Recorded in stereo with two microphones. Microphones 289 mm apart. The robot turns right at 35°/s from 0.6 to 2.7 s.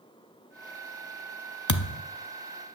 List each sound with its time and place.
1.7 s a thud: 75° left (ahead or behind), 0.7 m; by 2.0 s 70° left (ahead or behind), 0.7 m